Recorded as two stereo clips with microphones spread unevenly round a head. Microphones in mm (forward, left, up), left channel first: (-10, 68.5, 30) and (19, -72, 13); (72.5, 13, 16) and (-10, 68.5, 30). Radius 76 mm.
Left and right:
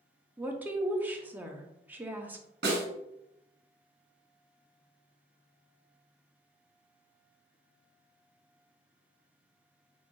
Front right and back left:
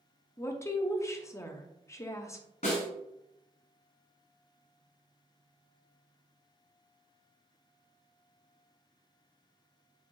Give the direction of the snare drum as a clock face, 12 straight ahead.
2 o'clock.